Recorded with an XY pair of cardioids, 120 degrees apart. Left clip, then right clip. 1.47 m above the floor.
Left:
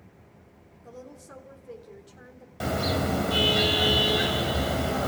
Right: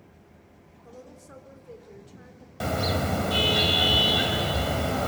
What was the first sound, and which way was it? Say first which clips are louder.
A woman speaking: left 2 dB; 15° left.